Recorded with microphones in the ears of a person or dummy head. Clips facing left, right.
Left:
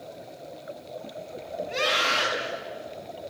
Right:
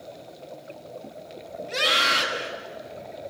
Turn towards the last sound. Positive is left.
turn(degrees=-40)  # may be behind; listen again after turning